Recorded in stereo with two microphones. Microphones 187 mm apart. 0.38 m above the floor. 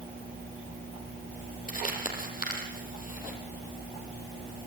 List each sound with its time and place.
1.7 s crumpling: 45° left (ahead or behind), 7 m